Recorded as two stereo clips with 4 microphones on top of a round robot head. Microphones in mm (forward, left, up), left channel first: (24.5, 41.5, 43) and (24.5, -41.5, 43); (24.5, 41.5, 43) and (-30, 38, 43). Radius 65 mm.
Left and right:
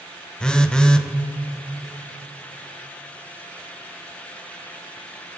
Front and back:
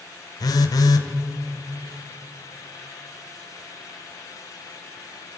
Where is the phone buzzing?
10° left, 0.6 m.